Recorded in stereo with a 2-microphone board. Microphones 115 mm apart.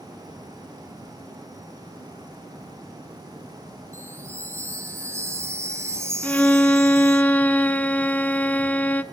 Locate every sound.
3.9 s a chime: 25° right (ahead or behind), 1.5 m
6.2 s a violin: 15° left (ahead or behind), 0.6 m